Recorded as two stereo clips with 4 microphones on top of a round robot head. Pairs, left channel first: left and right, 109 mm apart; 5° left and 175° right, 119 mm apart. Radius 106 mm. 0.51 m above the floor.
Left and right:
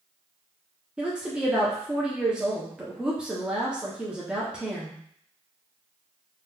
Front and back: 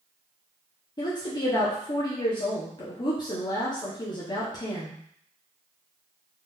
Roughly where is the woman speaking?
Ahead.